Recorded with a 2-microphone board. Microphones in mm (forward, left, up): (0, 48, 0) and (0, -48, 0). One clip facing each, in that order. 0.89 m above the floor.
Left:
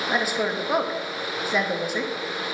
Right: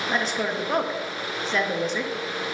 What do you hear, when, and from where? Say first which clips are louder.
0.1 s a woman speaking: left 1 dB; 10° left (ahead or behind), 0.8 m